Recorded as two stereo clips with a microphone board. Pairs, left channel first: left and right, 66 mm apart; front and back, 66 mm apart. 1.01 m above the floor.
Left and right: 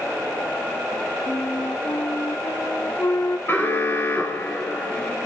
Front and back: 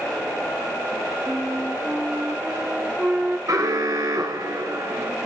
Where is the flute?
115° left, 0.6 m.